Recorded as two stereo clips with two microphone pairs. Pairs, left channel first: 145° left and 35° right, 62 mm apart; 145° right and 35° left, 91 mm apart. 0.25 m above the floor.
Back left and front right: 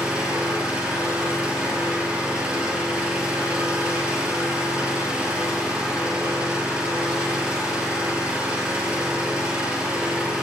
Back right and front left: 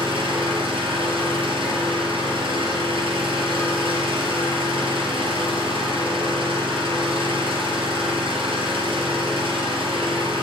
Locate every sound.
0.0 s an engine running: 40° left, 4.5 m